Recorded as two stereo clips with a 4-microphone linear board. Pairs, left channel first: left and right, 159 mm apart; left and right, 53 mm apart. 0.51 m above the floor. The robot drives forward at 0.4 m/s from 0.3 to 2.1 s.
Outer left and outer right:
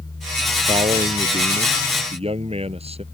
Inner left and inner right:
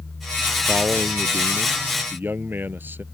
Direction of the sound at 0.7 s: 40° right (ahead or behind).